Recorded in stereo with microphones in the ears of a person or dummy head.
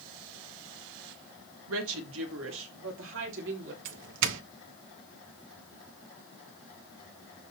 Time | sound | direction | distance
1.7 | a woman speaking | 85° right | 2 m
3.9 | a doorbell | 65° right (ahead or behind) | 1.0 m